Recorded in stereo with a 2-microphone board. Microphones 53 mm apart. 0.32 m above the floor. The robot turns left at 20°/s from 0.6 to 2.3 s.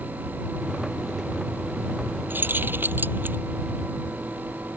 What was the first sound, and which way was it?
Keys jangling, 40° right (ahead or behind).